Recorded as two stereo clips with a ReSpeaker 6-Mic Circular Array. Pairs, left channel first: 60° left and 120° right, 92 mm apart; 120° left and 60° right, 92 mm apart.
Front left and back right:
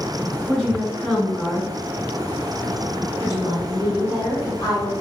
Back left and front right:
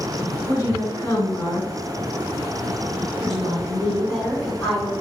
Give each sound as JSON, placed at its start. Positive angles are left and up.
{"t": 0.5, "sound": "a woman speaking", "azimuth_deg": 140, "distance_m": 1.9}
{"t": 3.2, "sound": "a woman speaking", "azimuth_deg": 45, "distance_m": 1.9}